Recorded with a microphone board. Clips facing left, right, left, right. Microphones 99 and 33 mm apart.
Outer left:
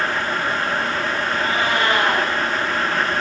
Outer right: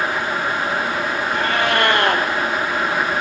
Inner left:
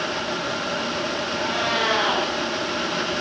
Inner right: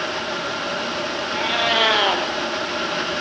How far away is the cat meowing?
About 3 m.